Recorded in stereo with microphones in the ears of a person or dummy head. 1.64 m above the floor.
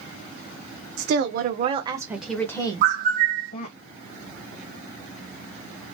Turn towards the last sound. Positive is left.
turn(degrees=-45)  # may be behind; listen again after turning